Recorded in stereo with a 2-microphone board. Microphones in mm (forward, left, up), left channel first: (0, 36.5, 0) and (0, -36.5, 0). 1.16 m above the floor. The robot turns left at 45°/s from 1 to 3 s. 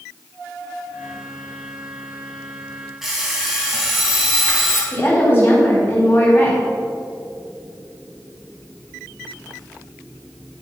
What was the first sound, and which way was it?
An alarm clock, 5° right (ahead or behind).